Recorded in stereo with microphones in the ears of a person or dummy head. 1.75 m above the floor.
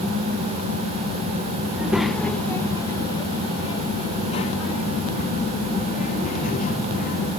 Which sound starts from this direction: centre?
A child speaking, at 1.7 s.